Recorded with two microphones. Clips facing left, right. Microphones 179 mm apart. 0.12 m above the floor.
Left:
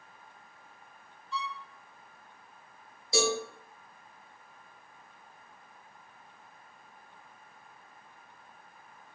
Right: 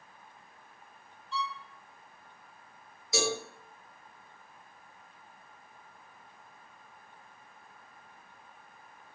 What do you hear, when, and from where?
1.3 s a violin: centre (ahead or behind), 1.6 m
3.1 s a cowbell: 30° left (ahead or behind), 1.8 m